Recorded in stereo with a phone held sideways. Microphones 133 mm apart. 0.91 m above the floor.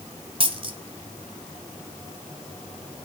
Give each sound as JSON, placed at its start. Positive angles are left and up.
{"t": 0.4, "sound": "a dropped coin", "side_deg": -45, "distance_m": 1.9}